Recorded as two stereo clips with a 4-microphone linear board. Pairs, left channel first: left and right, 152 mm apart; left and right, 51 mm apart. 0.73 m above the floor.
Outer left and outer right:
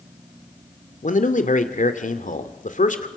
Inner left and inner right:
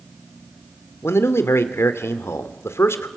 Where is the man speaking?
55° left (ahead or behind), 2.5 m.